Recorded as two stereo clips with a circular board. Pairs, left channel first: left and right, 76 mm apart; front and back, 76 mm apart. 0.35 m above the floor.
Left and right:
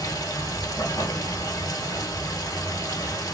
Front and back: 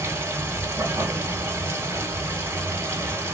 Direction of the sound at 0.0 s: 130° left.